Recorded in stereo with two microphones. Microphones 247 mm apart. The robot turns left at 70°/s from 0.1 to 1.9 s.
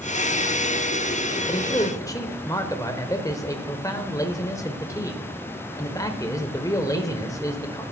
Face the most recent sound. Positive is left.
turn(degrees=15)  # may be behind; listen again after turning